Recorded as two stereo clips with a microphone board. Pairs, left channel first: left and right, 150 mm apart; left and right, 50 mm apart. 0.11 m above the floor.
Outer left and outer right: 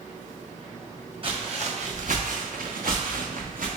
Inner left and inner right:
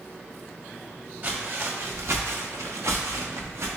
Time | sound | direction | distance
1.2 | footsteps | 40° right (ahead or behind) | 1.1 m